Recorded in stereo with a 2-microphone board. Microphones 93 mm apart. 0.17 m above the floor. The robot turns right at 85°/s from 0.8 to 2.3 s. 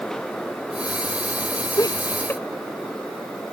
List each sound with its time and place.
1.8 s laughter: 45° left (ahead or behind); by 2.4 s 20° left (ahead or behind)